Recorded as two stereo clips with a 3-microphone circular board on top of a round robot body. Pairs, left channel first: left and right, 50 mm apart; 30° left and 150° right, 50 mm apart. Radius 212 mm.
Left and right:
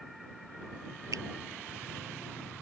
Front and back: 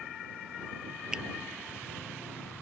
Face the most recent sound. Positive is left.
turn(degrees=-75)